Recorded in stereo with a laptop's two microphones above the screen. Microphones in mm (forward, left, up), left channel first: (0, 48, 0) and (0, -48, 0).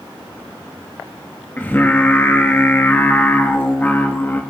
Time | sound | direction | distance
1.6 | singing | 20° left (ahead or behind) | 1.4 m